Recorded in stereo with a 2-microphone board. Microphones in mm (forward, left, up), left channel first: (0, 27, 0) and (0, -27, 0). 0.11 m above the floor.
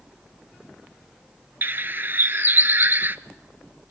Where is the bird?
40° right (ahead or behind), 0.6 m.